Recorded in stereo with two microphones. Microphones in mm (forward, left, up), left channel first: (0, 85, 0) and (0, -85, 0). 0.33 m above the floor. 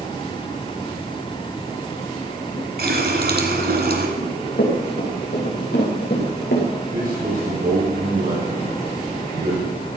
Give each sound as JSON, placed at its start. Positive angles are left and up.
{"t": 2.8, "sound": "a running tap", "side_deg": -70, "distance_m": 2.0}
{"t": 4.2, "sound": "running footsteps", "side_deg": 70, "distance_m": 6.5}
{"t": 6.9, "sound": "a man speaking", "side_deg": -55, "distance_m": 3.5}